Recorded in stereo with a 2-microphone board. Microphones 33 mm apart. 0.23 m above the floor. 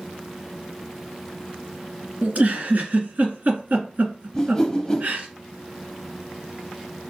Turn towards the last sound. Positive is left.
turn(degrees=15)  # may be behind; listen again after turning